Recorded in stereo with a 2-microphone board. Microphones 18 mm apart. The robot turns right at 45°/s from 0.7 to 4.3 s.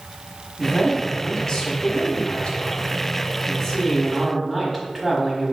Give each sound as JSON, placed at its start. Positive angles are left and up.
{"t": 0.6, "sound": "a man speaking", "azimuth_deg": 15, "distance_m": 1.5}